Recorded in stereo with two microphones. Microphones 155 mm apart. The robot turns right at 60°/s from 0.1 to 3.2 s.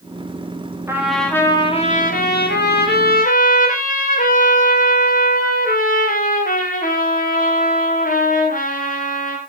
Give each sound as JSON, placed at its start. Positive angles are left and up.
{"t": 0.9, "sound": "a trumpet", "azimuth_deg": -15, "distance_m": 6.0}